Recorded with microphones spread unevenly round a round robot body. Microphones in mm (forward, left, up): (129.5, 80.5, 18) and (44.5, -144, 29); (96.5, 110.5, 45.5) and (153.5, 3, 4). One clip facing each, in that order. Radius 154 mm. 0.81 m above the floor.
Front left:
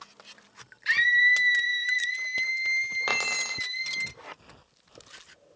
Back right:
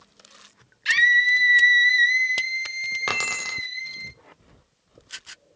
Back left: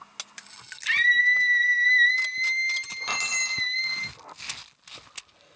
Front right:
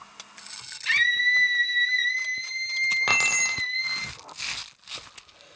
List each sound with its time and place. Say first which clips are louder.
0.8 s a scream: back right 3 dB, back left 2 dB; 70° right, 1.5 m; by 4.1 s 90° left, 1.1 m
3.1 s keys jangling: back right 2 dB, front right 3 dB; 50° right, 1.8 m